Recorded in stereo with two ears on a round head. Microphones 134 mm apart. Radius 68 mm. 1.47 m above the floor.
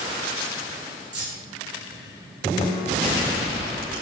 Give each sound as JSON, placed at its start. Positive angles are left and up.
{"t": 1.1, "sound": "keys jangling", "side_deg": -85, "distance_m": 4.0}